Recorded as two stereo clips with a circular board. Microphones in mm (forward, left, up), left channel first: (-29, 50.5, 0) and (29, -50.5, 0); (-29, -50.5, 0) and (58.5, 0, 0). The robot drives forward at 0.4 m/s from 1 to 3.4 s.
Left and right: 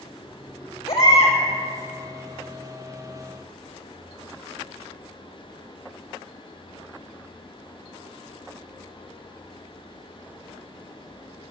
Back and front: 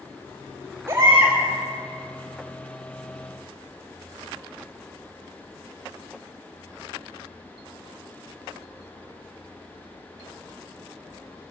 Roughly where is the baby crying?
Left.